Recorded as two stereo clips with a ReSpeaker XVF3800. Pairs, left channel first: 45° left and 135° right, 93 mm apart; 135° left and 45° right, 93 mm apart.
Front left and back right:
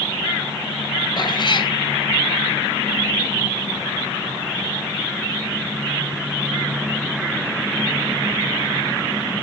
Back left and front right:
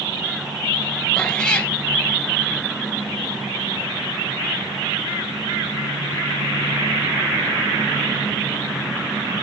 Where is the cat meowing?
60° left, 0.8 m.